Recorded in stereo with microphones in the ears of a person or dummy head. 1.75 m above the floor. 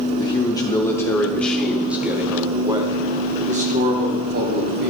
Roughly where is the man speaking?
Left.